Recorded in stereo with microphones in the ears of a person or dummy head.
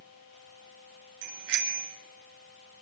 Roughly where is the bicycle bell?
Right.